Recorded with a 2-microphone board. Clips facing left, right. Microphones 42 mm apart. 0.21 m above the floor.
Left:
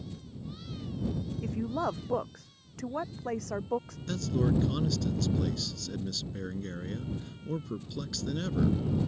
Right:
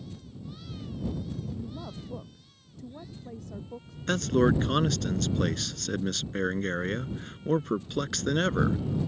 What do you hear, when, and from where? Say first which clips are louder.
1.4 s a woman speaking: left 7 dB; 75° left (ahead or behind); by 4.0 s 85° left
4.1 s a man speaking: right 6 dB; 65° right (ahead or behind)